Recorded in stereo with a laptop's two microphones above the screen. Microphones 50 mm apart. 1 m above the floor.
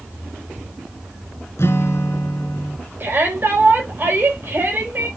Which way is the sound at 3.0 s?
45° right (ahead or behind).